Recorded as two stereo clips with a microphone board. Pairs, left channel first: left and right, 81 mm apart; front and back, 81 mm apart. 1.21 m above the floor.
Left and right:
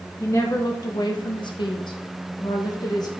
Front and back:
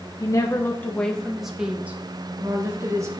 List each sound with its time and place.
0.2 s a woman speaking: 40° left, 0.8 m; by 3.1 s 130° left, 1.4 m